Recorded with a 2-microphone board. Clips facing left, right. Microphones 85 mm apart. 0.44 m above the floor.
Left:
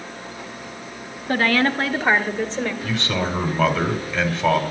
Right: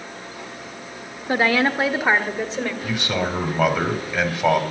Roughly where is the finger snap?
No finger snap in this recording.